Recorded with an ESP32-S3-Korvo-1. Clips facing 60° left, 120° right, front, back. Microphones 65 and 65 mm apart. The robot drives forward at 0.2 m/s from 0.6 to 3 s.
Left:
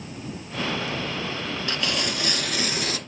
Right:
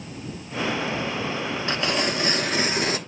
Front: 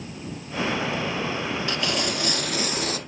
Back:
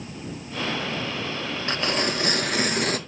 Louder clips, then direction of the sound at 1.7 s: Right 4 dB, back 5 dB; 160° right.